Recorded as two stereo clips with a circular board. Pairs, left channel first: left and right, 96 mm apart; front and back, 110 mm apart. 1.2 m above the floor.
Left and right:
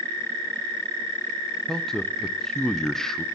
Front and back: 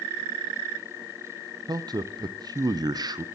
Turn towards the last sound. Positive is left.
turn(degrees=170)